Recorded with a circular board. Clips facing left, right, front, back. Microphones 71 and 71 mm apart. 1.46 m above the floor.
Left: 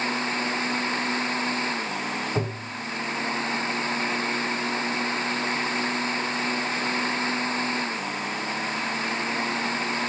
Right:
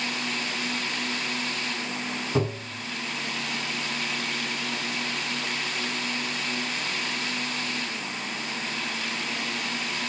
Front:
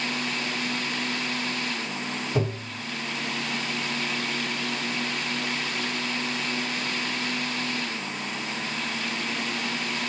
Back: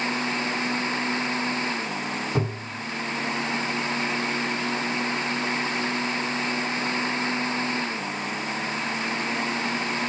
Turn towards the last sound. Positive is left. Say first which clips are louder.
# right 2 dB, even
turn(degrees=-115)